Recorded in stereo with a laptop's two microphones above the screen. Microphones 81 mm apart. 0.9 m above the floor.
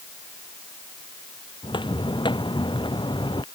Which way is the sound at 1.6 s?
80° left.